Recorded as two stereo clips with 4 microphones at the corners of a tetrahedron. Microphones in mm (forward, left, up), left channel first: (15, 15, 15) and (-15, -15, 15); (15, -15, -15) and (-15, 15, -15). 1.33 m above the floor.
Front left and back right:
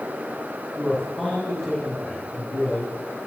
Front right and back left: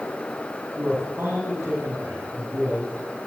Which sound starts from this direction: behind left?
A man speaking, at 0.8 s.